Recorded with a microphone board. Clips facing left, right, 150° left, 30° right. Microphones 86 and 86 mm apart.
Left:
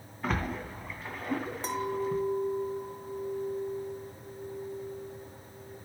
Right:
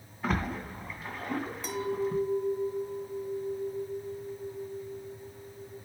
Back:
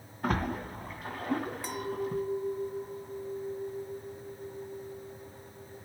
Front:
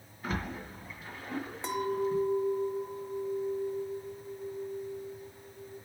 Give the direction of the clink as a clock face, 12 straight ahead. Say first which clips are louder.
Even, front 4 dB; 11 o'clock.